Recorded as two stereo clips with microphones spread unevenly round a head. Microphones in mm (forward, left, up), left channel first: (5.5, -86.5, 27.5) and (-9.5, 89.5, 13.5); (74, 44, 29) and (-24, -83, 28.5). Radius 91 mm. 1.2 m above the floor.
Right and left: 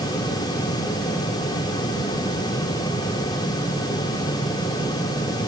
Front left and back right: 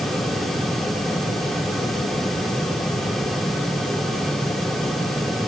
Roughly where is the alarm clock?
I don't hear an alarm clock.